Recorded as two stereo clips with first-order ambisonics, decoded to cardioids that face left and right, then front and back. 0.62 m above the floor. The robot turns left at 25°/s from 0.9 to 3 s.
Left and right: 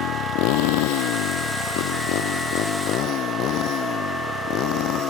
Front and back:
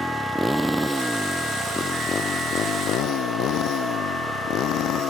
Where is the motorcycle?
95° left; by 5.1 s 50° left.